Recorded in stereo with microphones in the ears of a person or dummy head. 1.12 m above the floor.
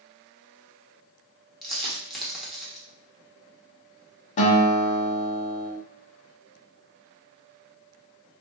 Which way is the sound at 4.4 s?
40° left (ahead or behind).